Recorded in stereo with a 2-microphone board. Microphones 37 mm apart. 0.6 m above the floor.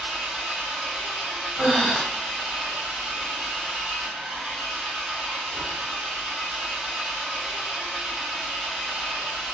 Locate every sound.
0.0 s an engine running: 30° right (ahead or behind), 1.7 m
1.6 s breathing: 15° right (ahead or behind), 1.8 m